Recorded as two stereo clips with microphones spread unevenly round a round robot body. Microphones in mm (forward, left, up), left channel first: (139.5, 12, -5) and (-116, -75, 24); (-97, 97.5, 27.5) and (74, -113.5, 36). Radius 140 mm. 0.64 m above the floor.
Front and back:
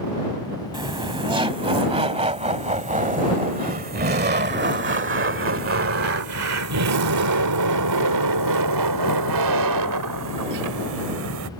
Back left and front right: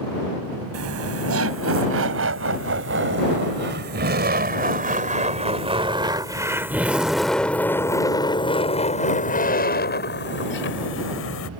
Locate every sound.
0.7 s laughter: 85° right; by 11.5 s 165° left